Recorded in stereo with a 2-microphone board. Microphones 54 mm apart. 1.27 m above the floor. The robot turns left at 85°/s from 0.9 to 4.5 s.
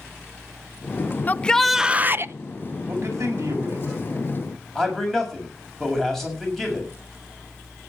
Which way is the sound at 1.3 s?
35° left.